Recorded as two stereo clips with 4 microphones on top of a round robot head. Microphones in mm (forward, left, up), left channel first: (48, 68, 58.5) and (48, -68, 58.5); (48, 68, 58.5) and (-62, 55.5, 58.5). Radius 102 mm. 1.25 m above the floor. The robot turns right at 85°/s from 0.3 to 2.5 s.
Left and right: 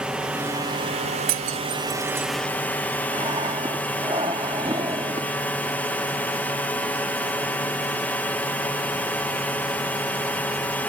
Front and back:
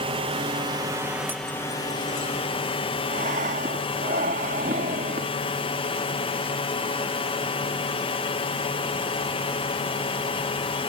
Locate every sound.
0.0 s a drone: 175° right; by 10.9 s 15° left
1.3 s breaking glass: 95° right; by 2.3 s 15° right
3.1 s breathing: 155° right